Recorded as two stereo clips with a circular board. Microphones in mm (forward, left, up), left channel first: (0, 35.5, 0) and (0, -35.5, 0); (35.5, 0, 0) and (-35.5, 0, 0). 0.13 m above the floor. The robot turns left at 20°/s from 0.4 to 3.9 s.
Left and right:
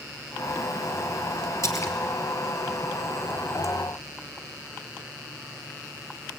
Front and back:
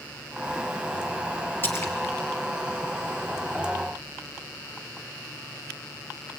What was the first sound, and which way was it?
A splash, 55° left.